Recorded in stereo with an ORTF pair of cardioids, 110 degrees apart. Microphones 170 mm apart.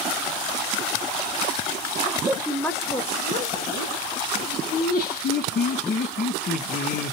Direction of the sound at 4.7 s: 55° left.